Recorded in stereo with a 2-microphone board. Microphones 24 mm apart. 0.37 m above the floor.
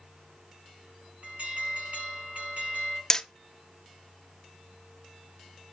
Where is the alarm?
75° right (ahead or behind), 6 m.